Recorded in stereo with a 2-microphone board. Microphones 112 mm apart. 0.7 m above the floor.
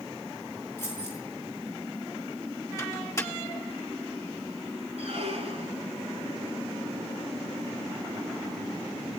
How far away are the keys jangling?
About 9.5 m.